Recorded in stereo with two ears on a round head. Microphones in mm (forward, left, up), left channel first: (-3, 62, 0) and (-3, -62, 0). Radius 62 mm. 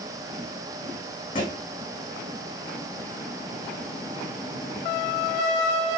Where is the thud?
35° left (ahead or behind), 5 m.